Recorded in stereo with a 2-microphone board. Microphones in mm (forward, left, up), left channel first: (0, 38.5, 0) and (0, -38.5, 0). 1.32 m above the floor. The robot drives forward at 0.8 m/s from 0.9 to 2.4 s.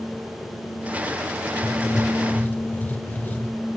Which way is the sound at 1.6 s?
40° left (ahead or behind).